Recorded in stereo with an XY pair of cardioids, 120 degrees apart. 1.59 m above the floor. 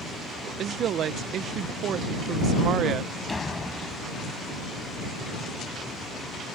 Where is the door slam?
15° left.